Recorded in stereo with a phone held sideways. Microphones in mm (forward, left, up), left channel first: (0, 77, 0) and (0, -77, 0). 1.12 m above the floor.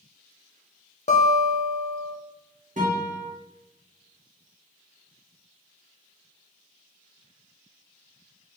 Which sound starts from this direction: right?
A guitar, at 2.8 s.